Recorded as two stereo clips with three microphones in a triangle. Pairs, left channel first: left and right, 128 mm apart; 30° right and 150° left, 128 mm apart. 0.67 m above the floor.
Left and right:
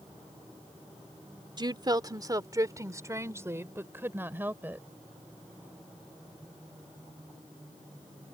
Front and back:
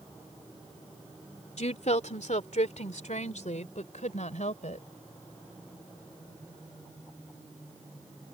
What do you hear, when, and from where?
1.6 s a woman speaking: 40° right; by 4.9 s 15° right